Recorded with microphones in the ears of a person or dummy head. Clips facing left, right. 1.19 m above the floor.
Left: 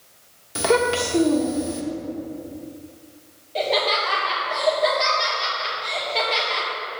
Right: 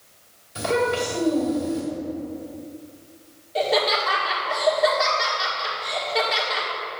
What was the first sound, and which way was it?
A child speaking, 65° left (ahead or behind).